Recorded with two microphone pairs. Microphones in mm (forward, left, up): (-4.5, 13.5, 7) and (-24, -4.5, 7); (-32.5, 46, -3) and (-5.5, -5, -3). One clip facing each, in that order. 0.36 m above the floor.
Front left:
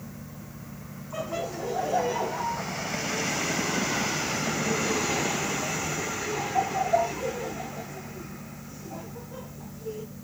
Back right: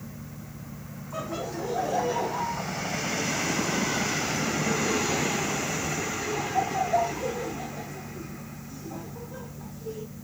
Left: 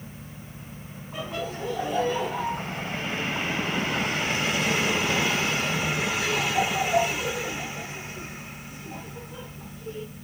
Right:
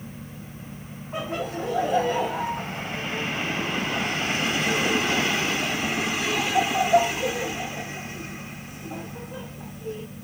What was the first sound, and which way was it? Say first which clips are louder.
Laughter: front left 1 dB, right 3 dB; 40° right.